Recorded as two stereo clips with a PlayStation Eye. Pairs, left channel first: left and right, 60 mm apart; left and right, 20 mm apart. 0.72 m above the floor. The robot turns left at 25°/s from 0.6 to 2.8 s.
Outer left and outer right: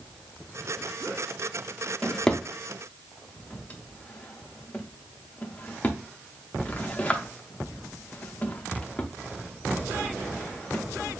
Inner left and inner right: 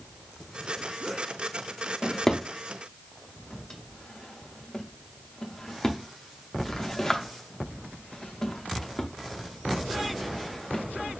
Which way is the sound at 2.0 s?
5° left (ahead or behind).